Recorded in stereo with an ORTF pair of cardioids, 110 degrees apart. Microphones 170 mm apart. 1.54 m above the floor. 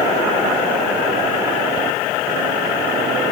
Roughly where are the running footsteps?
I don't hear running footsteps.